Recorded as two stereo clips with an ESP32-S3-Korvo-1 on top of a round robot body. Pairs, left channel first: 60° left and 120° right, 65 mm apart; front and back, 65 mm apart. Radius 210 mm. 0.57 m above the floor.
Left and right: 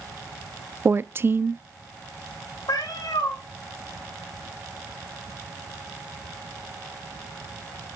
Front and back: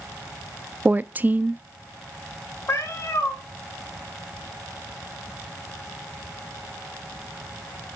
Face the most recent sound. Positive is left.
turn(degrees=45)